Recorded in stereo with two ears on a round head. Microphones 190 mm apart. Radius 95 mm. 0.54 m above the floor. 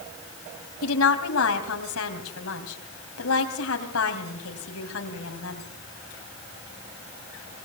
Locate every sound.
0.8 s a woman speaking: 75° left (ahead or behind), 3.5 m